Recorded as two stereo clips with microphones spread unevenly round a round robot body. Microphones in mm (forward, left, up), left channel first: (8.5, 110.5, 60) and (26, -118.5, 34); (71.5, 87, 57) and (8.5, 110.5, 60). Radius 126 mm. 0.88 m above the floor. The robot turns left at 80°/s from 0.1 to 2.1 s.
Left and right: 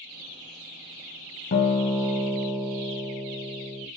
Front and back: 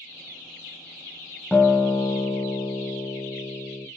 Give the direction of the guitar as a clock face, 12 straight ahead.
10 o'clock.